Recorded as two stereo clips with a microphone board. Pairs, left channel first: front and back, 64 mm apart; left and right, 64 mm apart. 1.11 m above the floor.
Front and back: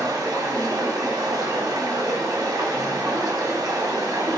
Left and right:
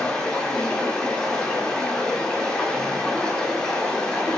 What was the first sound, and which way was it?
Running water, 170° left.